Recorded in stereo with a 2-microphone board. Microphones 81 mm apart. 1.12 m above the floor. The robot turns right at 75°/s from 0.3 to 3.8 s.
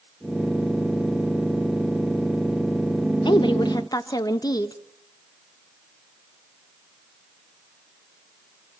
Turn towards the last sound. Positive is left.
turn(degrees=125)